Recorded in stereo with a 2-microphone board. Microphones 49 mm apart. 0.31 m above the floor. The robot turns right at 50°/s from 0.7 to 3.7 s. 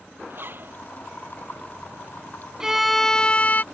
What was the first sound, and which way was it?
A zipper, 50° right (ahead or behind).